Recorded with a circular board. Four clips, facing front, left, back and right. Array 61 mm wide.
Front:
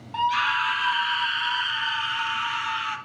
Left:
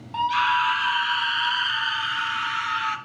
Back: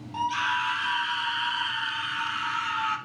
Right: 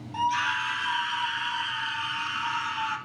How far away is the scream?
About 1.5 m.